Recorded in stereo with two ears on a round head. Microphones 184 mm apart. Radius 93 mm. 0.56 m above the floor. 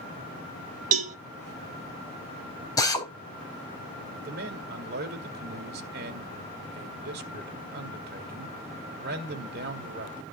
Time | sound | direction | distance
0.9 | a cowbell | 40° right (ahead or behind) | 2 m
2.8 | a drill | 20° left (ahead or behind) | 3.5 m
4.2 | a man speaking | 50° right (ahead or behind) | 1.9 m